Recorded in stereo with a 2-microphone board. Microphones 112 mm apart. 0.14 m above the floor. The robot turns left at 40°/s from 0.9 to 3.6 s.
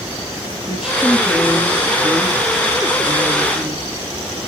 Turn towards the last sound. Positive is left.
turn(degrees=-15)  # may be behind; listen again after turning